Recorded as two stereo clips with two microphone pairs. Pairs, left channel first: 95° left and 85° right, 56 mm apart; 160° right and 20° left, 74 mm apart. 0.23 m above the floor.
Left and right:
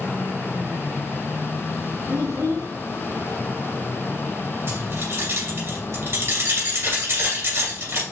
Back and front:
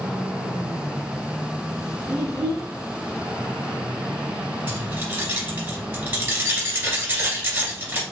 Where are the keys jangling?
50° right, 2 m.